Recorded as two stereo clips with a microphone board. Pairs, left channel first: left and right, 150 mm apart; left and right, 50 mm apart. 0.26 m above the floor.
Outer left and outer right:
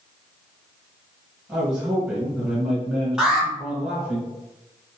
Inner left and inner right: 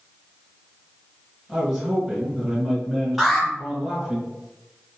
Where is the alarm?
5° right (ahead or behind), 1.0 m.